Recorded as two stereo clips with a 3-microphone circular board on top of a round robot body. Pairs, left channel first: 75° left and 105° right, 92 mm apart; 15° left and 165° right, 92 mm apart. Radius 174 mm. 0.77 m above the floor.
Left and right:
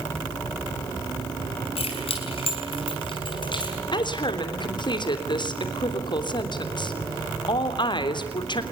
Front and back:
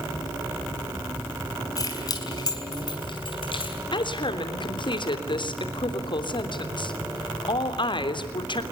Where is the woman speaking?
40° left, 3 m.